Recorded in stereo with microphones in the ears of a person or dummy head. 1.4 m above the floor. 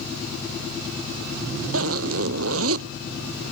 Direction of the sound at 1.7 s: 80° right.